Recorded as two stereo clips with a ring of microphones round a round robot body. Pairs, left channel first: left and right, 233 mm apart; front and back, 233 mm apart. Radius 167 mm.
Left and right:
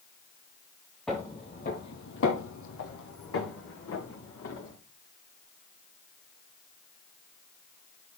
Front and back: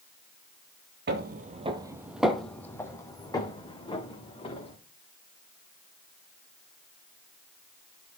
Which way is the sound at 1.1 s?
Straight behind.